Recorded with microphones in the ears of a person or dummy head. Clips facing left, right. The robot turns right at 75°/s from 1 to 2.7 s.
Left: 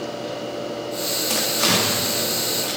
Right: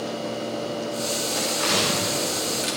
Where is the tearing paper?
75° left (ahead or behind), 4.5 m; by 2.8 s 30° right (ahead or behind), 4.5 m.